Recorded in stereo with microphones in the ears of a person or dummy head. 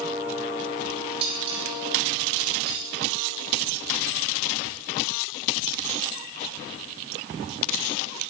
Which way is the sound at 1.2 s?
30° right (ahead or behind).